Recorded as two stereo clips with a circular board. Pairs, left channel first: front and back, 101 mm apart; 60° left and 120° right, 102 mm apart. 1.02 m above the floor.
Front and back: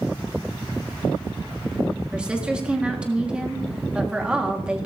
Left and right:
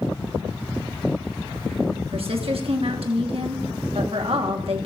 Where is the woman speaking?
100° right, 1.8 m.